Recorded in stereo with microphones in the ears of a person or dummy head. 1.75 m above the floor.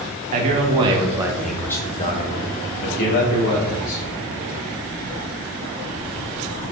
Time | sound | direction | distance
0.3 | a man speaking | 35° right (ahead or behind) | 1.3 m